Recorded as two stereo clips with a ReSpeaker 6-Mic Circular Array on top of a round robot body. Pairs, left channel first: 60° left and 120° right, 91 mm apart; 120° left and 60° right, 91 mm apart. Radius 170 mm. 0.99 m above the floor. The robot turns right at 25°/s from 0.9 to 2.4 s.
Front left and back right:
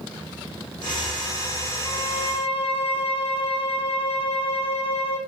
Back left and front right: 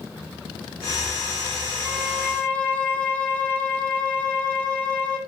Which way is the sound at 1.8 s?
35° left.